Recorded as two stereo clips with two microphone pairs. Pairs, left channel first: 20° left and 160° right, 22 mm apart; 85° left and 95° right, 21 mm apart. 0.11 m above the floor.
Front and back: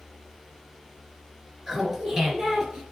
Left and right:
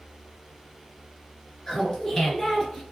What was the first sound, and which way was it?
Laughter, 130° left.